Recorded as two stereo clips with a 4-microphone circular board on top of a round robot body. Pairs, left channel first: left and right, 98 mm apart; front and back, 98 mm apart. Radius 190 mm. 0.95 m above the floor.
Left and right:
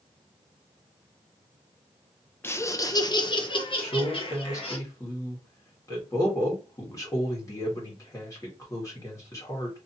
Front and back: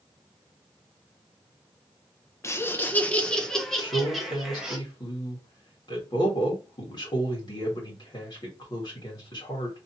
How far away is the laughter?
About 0.8 m.